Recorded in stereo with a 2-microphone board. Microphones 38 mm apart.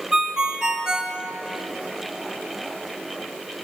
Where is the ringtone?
20° right (ahead or behind), 0.7 m.